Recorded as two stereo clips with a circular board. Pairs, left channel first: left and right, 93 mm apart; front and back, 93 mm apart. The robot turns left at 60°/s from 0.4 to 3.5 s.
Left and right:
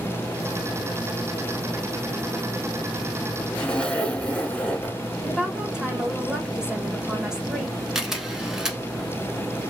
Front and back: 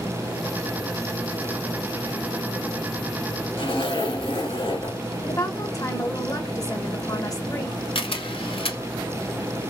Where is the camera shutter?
5° right, 0.8 m.